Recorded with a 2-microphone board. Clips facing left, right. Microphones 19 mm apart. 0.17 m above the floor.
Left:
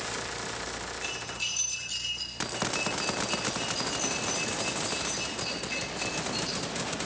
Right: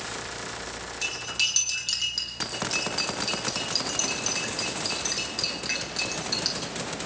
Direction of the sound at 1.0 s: 75° right (ahead or behind).